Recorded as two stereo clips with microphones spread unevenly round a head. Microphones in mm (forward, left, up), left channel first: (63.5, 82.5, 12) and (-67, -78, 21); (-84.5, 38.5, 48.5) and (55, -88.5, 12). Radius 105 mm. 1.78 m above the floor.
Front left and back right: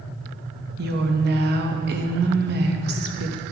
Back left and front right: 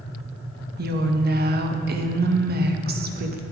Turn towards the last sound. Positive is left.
turn(degrees=-85)